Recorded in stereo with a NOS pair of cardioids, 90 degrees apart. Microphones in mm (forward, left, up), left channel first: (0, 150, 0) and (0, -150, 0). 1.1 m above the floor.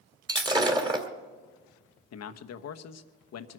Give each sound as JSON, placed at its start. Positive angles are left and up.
{"t": 0.3, "sound": "breaking glass", "azimuth_deg": -15, "distance_m": 2.0}
{"t": 2.1, "sound": "a man speaking", "azimuth_deg": 60, "distance_m": 1.1}